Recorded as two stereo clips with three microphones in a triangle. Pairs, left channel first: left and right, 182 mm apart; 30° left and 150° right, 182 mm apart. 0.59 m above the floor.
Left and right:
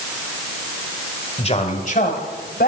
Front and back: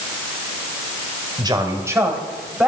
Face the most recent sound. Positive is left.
turn(degrees=125)